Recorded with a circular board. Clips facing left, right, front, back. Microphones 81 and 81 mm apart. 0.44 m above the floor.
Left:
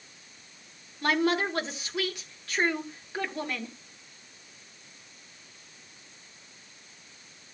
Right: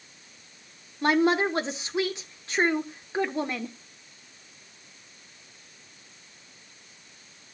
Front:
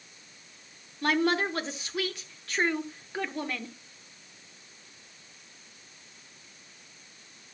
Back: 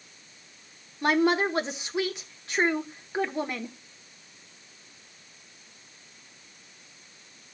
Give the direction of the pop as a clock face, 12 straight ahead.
No pop in this recording.